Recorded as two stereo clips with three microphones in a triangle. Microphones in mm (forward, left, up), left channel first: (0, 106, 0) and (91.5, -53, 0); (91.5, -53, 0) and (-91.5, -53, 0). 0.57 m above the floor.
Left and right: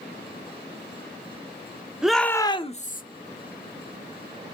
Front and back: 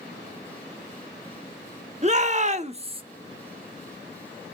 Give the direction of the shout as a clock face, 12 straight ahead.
5 o'clock.